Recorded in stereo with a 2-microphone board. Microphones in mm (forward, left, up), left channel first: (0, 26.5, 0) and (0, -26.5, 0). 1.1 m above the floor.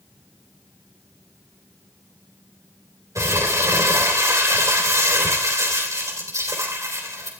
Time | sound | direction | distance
3.1 | crumpling | 85° right | 4 m